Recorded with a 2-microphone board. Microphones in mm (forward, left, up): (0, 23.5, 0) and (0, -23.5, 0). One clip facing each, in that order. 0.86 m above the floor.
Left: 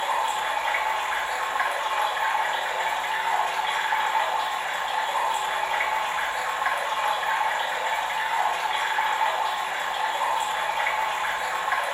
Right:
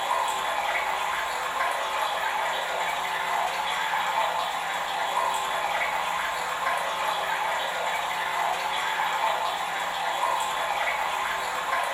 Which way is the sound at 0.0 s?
40° left (ahead or behind).